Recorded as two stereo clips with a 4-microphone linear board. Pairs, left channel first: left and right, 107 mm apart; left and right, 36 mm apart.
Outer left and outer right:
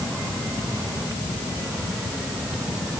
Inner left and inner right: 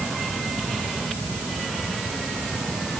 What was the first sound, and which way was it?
Only background noise.